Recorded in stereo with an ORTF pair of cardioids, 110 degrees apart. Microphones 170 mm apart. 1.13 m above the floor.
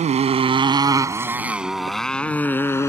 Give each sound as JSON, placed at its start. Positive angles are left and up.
{"t": 0.0, "sound": "a motorcycle", "azimuth_deg": -45}